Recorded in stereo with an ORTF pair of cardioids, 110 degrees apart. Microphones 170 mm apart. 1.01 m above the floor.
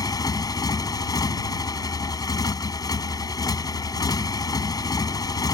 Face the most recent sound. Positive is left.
turn(degrees=25)